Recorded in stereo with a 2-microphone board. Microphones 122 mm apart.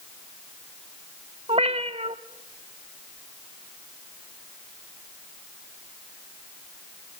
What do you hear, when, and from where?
1.5 s a cat meowing: 50° right (ahead or behind), 1.4 m